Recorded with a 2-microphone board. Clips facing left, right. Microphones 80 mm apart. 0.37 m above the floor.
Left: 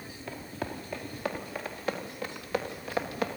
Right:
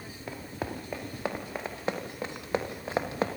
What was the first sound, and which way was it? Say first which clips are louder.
Running footsteps: right 1 dB; 20° right (ahead or behind).